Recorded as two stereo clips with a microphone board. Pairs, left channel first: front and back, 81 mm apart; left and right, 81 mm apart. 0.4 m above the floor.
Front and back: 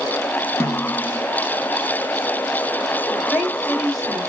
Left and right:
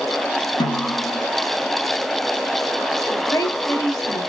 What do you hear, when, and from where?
0.6 s a snare drum: 60° left, 1.3 m
3.1 s a woman speaking: 85° left, 1.9 m